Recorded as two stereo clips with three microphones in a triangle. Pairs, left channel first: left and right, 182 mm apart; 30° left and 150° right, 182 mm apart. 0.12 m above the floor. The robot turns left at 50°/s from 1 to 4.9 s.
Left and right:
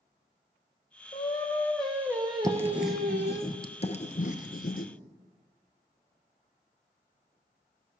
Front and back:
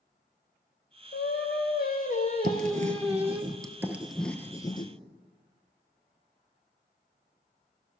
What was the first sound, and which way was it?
Singing, 35° left.